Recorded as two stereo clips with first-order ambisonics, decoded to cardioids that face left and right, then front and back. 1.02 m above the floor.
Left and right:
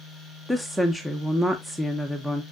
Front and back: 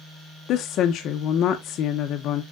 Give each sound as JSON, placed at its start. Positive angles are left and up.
{"t": 0.5, "sound": "a woman speaking", "azimuth_deg": -5, "distance_m": 0.7}